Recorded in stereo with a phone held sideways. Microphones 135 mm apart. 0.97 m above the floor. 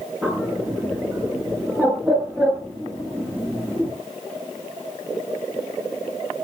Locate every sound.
0.2 s a bird: 10° right (ahead or behind), 8.5 m